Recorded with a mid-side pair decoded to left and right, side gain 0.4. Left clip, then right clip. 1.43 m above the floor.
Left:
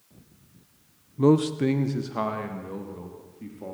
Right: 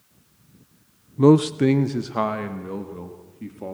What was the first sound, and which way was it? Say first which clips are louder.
A man speaking: right 5 dB; 35° right.